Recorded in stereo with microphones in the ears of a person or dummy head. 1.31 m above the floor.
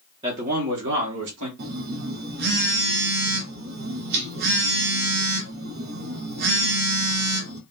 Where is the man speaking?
20° right (ahead or behind), 0.6 m; by 1.5 s 70° right (ahead or behind), 1.5 m.